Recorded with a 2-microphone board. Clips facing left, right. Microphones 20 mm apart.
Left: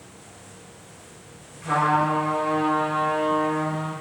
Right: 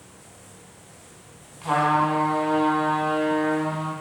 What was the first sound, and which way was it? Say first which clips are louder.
A trumpet: even; 65° right (ahead or behind).